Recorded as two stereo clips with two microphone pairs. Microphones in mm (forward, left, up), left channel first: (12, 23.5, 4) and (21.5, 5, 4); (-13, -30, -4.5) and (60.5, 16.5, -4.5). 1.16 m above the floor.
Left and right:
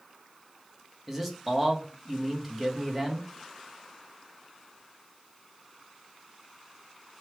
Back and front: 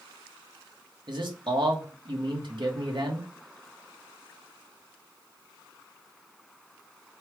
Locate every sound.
1.1 s a man speaking: 20° left, 1.2 m